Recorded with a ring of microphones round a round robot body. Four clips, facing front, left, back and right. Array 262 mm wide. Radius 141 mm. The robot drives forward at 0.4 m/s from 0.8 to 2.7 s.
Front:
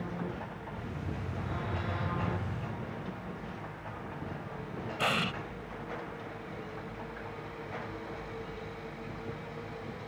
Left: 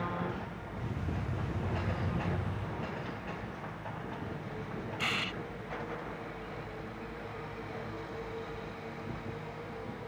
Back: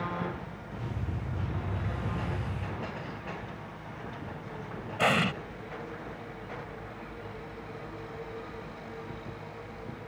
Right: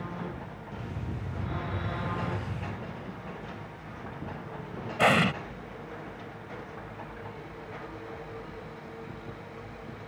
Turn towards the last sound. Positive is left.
turn(degrees=-110)